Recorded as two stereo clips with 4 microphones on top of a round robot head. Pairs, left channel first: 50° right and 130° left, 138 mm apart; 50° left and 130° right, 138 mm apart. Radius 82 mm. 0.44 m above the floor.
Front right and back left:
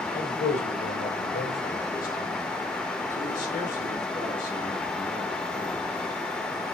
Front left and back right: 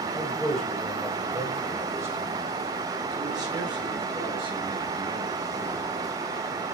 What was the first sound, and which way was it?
A man speaking, 25° right.